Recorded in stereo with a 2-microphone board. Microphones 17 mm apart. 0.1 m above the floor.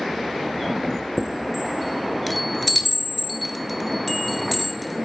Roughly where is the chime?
Centre.